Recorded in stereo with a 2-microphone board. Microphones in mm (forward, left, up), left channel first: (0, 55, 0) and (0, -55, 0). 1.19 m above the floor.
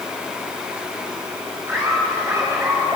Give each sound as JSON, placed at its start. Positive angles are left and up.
{"t": 1.7, "sound": "laughter", "side_deg": -20, "distance_m": 6.0}